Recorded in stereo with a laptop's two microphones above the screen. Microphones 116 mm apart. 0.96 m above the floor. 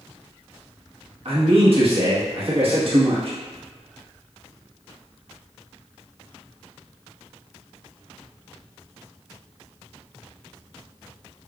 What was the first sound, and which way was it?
A man speaking, 55° right (ahead or behind).